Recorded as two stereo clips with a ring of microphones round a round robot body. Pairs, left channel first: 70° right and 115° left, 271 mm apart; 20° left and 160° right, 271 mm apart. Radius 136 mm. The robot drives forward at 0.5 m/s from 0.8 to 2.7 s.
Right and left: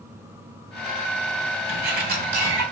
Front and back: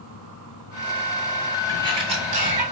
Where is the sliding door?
140° left, 1.3 m; by 2.6 s 155° left, 1.5 m.